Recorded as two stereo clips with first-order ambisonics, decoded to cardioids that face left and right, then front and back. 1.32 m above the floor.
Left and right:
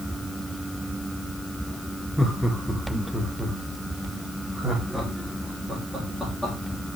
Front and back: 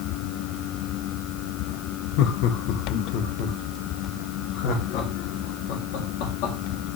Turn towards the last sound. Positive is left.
turn(degrees=-5)